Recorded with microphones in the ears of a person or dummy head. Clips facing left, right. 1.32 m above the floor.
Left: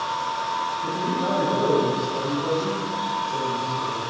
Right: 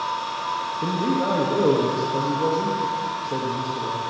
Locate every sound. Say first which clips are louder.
0.8 s a man speaking: right 4 dB; 70° right (ahead or behind), 1.3 m